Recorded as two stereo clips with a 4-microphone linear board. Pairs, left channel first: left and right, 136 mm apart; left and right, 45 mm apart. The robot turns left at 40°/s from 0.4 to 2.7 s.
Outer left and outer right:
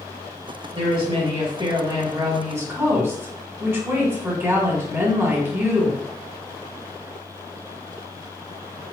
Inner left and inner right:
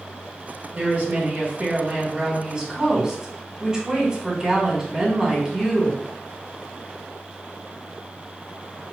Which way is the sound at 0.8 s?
75° right.